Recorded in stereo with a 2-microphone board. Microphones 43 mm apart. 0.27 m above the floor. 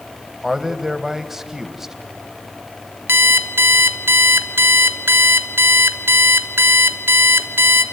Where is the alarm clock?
65° right (ahead or behind), 1.2 m.